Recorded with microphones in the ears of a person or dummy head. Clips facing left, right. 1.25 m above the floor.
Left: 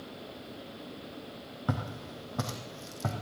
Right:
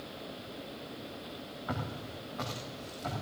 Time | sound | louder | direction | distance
1.7 | footsteps | left 3 dB | 55° left (ahead or behind) | 3 m